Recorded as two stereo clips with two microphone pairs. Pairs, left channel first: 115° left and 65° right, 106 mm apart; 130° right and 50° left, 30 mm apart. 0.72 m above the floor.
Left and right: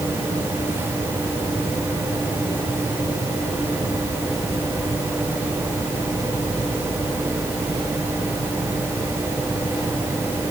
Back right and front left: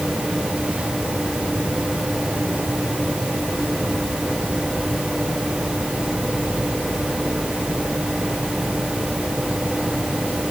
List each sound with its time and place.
Only background noise.